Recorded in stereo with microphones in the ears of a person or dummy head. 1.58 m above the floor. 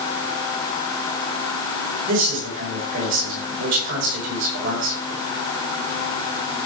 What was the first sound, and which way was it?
A man speaking, 75° right (ahead or behind).